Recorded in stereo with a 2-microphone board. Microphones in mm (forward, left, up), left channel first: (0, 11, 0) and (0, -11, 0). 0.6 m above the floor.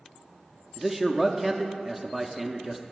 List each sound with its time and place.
0.8 s a man speaking: 10° right (ahead or behind), 0.5 m